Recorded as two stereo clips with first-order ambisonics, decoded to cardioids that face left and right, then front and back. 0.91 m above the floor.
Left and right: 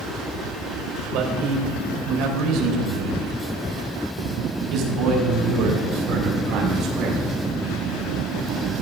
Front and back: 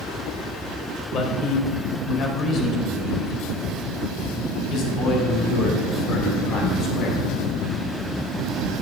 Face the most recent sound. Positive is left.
turn(degrees=-45)